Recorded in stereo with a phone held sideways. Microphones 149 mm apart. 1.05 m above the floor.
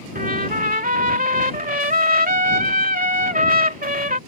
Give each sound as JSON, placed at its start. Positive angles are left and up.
{"t": 0.1, "sound": "a trumpet", "side_deg": -75}